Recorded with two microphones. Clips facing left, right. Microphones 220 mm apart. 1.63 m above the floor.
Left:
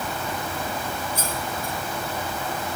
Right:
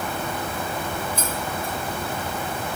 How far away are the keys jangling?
About 2 m.